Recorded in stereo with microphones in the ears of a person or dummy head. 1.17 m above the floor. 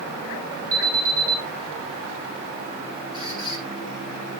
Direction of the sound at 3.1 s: 25° right (ahead or behind).